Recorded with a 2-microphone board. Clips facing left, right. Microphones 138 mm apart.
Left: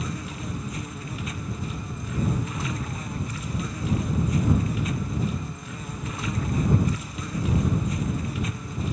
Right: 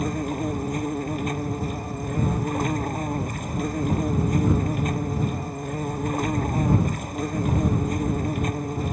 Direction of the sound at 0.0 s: 50° right (ahead or behind).